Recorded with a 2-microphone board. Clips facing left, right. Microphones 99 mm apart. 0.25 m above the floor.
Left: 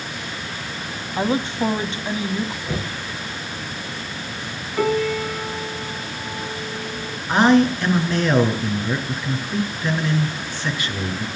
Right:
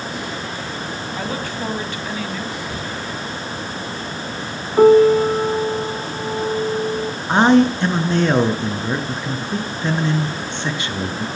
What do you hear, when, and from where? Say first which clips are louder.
1.2 s a woman speaking: left 7 dB; 25° left (ahead or behind), 1.7 m
2.7 s knocking: even; 25° left (ahead or behind), 4.5 m
4.8 s a piano: right 11 dB; 30° right (ahead or behind), 2.0 m
7.3 s a man speaking: right 2 dB; 25° right (ahead or behind), 3.5 m